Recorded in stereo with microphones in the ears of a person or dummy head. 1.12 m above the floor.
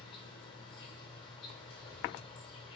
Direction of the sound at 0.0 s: 30° left (ahead or behind).